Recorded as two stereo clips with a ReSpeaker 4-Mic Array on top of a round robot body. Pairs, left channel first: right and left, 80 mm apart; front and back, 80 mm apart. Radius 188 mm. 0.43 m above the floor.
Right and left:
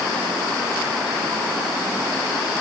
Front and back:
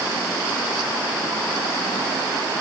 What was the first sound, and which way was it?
Only background noise.